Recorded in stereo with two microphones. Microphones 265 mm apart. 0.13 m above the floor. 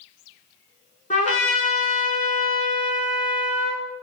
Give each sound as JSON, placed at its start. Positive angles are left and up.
{"t": 1.1, "sound": "a trumpet", "side_deg": 25, "distance_m": 0.8}